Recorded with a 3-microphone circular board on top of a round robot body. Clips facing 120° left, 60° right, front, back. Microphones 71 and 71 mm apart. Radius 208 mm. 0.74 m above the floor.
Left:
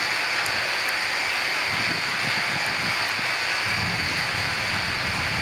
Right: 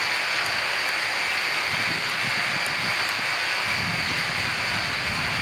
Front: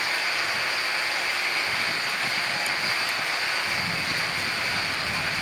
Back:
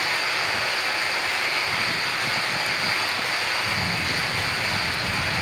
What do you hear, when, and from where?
0.0 s running water: 160° right, 3.5 m
3.6 s a camera shutter: 175° right, 3.5 m